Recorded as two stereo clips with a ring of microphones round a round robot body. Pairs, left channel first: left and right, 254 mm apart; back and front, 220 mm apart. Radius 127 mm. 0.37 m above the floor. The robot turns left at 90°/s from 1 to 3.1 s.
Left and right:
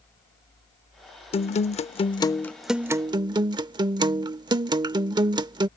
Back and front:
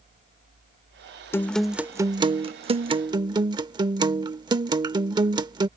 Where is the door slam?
I don't hear a door slam.